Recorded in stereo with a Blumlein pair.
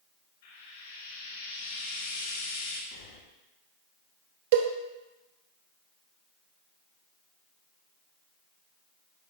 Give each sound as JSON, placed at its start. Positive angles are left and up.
{"t": 0.4, "sound": "frying", "azimuth_deg": 60, "distance_m": 2.5}
{"t": 2.9, "sound": "breathing", "azimuth_deg": 50, "distance_m": 1.7}
{"t": 4.5, "sound": "a cowbell", "azimuth_deg": -55, "distance_m": 0.9}